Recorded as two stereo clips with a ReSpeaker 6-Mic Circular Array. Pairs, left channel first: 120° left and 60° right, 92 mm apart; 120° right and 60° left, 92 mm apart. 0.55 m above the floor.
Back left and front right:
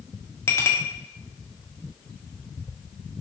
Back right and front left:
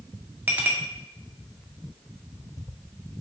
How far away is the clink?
About 0.5 m.